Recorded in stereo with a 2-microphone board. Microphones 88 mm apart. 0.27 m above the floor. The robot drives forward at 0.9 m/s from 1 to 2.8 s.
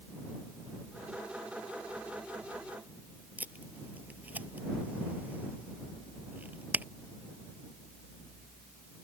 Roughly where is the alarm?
No alarm in this recording.